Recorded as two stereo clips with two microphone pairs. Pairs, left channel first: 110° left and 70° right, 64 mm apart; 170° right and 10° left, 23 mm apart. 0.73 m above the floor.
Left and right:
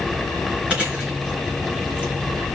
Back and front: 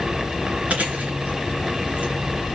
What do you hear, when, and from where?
0.7 s chewing: straight ahead, 3.5 m